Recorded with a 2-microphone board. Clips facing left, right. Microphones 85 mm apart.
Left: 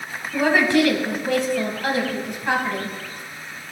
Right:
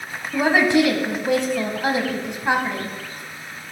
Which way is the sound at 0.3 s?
20° right (ahead or behind).